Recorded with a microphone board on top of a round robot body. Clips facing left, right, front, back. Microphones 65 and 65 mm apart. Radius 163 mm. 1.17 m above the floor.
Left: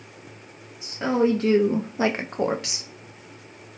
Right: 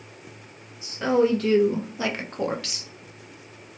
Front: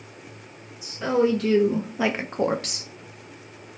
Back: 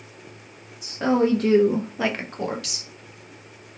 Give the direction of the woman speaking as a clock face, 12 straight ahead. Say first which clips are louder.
Right 1 dB, back 1 dB; 7 o'clock.